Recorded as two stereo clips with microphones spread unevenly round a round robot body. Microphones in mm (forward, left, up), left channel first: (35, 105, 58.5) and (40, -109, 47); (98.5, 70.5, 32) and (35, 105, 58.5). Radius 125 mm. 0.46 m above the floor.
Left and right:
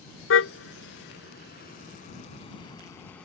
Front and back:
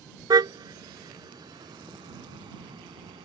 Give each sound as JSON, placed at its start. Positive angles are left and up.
{"t": 0.3, "sound": "a car horn", "azimuth_deg": 130}